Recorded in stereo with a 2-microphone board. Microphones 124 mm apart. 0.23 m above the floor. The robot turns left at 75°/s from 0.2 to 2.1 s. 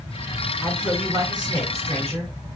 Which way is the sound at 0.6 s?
10° left.